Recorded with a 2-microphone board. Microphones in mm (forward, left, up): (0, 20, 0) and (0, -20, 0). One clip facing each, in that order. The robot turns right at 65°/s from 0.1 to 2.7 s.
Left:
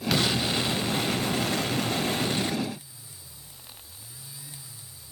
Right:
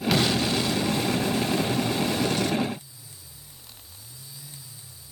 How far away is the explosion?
About 0.7 m.